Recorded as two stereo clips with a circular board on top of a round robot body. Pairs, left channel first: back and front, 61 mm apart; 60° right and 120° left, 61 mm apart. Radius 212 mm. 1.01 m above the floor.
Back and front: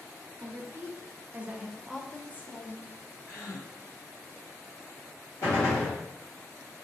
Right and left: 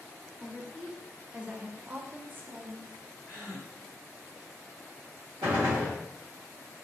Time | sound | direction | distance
0.4 | a woman speaking | 40° left | 1.2 m
3.2 | a gasp | 85° right | 0.9 m
5.4 | a gunshot | 135° left | 0.7 m